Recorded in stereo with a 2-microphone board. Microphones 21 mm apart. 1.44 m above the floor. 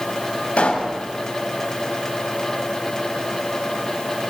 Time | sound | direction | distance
0.6 | a pop | 60° left (ahead or behind) | 6 m